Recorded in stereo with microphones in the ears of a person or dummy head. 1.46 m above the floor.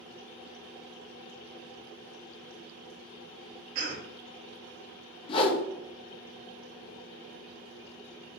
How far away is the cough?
About 1.2 m.